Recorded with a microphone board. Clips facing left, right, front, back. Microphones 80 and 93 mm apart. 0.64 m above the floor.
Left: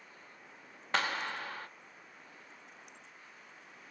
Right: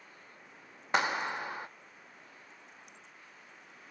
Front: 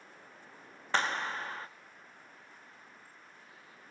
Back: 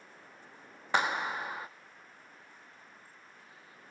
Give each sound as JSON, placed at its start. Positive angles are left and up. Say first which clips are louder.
{"t": 0.9, "sound": "a clap", "louder": "right 3 dB, back 2 dB", "azimuth_deg": -125, "distance_m": 0.6}